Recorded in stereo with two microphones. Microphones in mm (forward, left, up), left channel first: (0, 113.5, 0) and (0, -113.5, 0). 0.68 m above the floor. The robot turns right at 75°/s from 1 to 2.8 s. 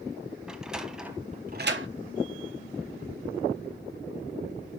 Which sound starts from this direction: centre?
A sliding door, at 0.5 s.